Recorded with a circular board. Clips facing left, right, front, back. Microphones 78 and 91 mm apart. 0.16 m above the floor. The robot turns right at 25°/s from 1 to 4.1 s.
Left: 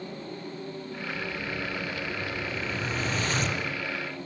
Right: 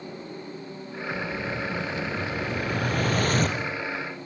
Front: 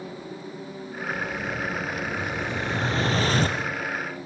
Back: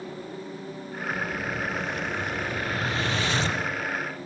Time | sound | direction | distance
1.1 | an explosion | 105° right | 4 m